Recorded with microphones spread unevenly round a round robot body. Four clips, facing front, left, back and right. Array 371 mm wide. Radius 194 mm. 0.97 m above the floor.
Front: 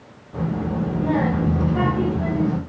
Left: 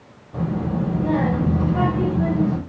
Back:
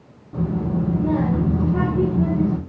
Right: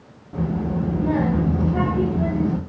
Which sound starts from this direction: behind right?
A child speaking, at 0.3 s.